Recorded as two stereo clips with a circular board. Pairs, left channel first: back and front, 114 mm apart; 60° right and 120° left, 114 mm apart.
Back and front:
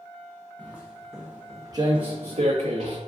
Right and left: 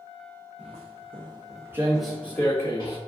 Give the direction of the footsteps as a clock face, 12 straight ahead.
8 o'clock.